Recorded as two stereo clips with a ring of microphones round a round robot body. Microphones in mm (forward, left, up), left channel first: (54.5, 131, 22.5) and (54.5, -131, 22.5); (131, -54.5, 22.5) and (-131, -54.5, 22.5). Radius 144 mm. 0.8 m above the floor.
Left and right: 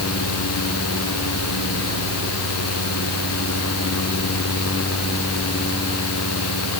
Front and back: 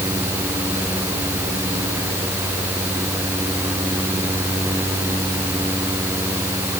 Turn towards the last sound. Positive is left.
No sound to turn to.